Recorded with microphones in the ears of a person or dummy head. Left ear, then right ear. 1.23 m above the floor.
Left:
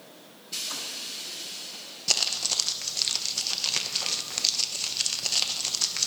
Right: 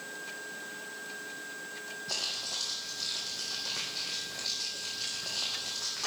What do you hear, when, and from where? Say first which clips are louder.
2.1 s crumpling: left 9 dB; 70° left (ahead or behind), 0.9 m